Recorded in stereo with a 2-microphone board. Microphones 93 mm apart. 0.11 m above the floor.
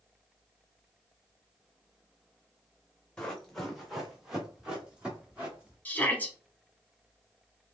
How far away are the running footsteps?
About 1.9 m.